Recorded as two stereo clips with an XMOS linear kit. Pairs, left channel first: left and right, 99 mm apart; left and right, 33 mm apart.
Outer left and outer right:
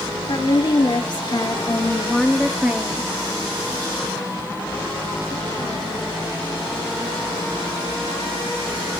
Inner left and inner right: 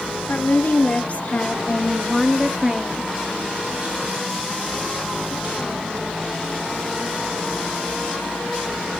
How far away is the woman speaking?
About 2 m.